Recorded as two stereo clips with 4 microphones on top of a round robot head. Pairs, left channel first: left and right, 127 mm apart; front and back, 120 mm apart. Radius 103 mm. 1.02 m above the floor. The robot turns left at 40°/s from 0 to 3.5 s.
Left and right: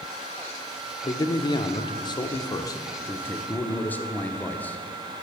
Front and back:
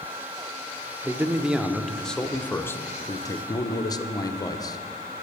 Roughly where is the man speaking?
Behind left.